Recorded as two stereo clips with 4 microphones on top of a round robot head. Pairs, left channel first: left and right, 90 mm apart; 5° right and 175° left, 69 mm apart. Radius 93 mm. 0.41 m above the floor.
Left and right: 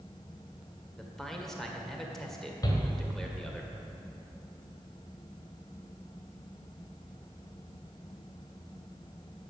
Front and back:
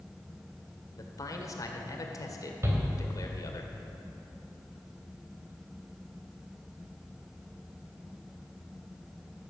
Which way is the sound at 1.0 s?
5° left.